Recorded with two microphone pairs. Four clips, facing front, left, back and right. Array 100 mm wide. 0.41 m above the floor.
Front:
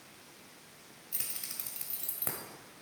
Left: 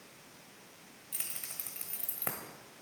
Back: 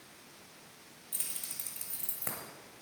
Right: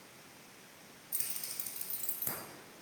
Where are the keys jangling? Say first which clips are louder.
Left 3 dB, front 1 dB; 55° left, 1.5 m; by 2.4 s 85° left, 1.5 m.